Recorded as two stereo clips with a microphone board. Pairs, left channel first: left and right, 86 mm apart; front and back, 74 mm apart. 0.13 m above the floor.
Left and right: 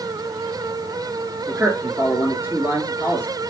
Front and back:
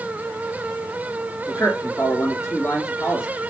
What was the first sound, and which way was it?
A man speaking, 40° right.